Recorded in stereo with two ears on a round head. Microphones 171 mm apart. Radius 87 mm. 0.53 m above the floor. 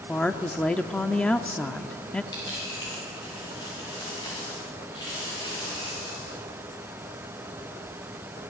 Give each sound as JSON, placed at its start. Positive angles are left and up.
{"t": 0.1, "sound": "a woman speaking", "side_deg": 5, "distance_m": 0.7}
{"t": 2.3, "sound": "a dropped coin", "side_deg": 25, "distance_m": 9.5}